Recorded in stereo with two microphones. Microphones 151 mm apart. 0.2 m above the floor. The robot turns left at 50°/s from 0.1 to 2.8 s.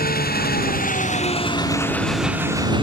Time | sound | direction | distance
0.0 | an engine running | 100° left | ?